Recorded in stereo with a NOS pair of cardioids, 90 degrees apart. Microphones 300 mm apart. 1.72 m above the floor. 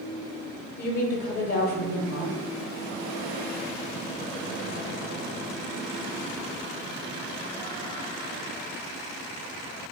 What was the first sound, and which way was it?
A woman speaking, 60° left.